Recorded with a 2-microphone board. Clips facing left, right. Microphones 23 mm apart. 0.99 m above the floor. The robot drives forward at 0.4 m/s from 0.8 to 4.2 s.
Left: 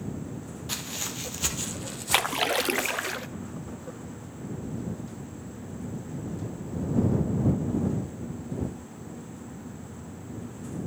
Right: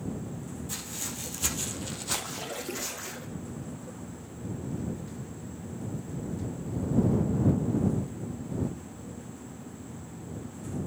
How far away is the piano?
I don't hear a piano.